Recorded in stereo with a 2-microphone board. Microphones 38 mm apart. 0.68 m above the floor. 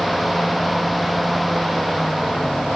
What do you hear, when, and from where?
Only background noise.